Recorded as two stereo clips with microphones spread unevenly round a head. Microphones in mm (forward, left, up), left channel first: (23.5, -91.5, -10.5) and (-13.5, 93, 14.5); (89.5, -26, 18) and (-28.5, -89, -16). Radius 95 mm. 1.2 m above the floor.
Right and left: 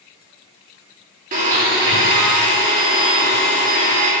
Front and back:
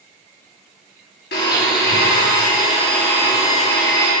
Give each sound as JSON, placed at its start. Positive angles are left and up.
{"t": 1.3, "sound": "a blender", "azimuth_deg": 50, "distance_m": 2.5}